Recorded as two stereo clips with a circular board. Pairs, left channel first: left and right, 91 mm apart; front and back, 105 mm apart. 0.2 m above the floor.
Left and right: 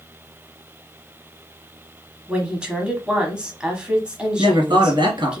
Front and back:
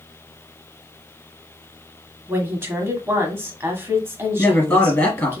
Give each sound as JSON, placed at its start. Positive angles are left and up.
{"t": 2.3, "sound": "a woman speaking", "azimuth_deg": -155, "distance_m": 1.2}
{"t": 4.4, "sound": "a man speaking", "azimuth_deg": -60, "distance_m": 2.5}